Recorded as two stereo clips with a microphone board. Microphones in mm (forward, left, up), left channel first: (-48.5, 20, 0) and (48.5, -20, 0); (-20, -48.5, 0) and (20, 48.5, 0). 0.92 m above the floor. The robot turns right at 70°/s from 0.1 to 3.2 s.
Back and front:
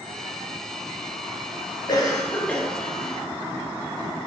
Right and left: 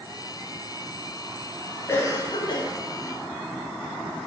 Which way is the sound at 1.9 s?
175° right.